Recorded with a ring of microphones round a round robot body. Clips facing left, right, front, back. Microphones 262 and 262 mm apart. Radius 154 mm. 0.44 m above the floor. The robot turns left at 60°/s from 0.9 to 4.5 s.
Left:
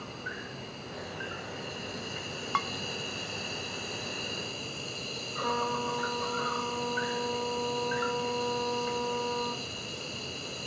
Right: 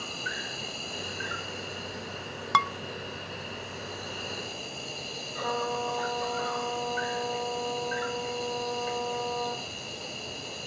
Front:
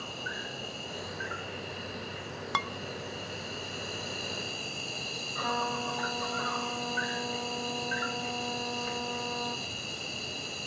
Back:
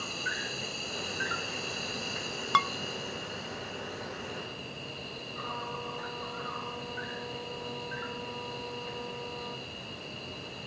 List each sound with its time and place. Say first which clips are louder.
0.0 s an insect: right 1 dB, back 1 dB; 130° right, 1.8 m; by 10.7 s 15° left, 1.8 m
2.5 s dishes clattering: right 7 dB, back 4 dB; 100° right, 0.9 m; by 2.7 s 110° right, 0.9 m
5.4 s a trumpet: right 1 dB, front 7 dB; 25° left, 5.5 m